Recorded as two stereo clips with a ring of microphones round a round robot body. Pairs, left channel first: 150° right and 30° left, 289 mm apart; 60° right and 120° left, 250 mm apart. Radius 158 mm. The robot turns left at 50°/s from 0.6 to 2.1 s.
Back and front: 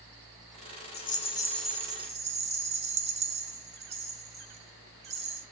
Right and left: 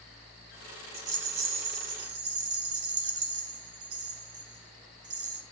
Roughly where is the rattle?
Behind left.